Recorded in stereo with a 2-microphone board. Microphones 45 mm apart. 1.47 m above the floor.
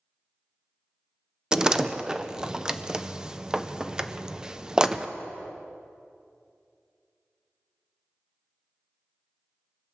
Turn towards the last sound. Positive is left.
turn(degrees=-15)  # may be behind; listen again after turning